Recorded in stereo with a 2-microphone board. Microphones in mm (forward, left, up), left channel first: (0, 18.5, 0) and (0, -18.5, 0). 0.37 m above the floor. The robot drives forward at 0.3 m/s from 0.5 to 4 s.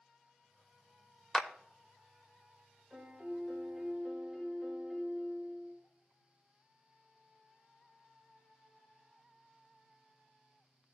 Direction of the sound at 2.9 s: Centre (ahead or behind).